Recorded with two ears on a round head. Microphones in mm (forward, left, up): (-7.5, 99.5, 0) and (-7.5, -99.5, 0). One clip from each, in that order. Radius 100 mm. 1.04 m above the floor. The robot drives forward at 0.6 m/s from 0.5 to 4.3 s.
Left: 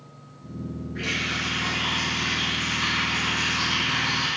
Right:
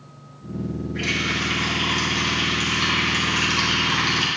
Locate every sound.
0.9 s a running tap: 15° right (ahead or behind), 4.5 m; by 4.3 s 30° right (ahead or behind), 2.5 m